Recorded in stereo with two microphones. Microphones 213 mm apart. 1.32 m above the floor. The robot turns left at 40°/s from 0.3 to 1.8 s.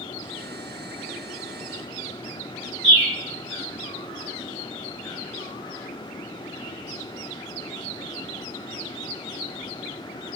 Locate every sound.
2.8 s a bird: 30° left (ahead or behind), 1.2 m